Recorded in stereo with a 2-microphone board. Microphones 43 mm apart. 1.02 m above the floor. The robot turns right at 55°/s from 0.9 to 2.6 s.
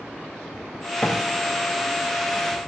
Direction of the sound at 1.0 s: 15° left (ahead or behind).